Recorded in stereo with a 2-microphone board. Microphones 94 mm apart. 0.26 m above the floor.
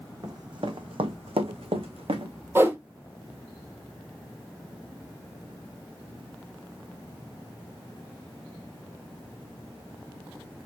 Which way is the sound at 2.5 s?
25° right (ahead or behind).